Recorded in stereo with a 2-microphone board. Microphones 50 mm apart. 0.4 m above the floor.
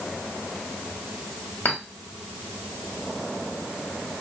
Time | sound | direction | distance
1.6 | a clink | 40° left (ahead or behind) | 1.6 m